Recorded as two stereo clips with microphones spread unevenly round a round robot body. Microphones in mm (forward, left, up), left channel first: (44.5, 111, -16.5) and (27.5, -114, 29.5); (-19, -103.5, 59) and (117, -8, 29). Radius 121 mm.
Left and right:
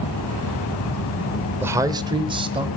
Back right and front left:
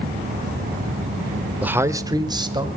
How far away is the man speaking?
About 0.8 m.